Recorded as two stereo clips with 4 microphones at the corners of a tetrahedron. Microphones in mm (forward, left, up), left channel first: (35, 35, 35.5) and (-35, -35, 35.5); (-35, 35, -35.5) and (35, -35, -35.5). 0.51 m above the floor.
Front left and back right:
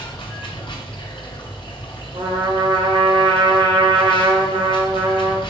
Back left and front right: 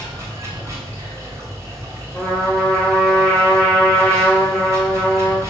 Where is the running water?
10° left, 2.5 m.